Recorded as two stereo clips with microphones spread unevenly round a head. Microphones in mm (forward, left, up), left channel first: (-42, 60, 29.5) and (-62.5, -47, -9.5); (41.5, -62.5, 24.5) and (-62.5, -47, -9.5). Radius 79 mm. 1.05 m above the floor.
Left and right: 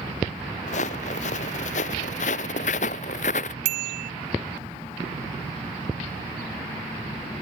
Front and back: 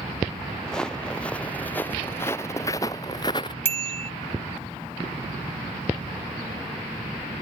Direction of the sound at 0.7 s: 75° left.